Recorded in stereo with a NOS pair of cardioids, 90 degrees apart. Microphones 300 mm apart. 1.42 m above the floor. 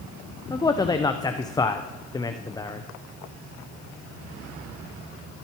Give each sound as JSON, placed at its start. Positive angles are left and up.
{"t": 0.5, "sound": "a man speaking", "azimuth_deg": 15, "distance_m": 0.6}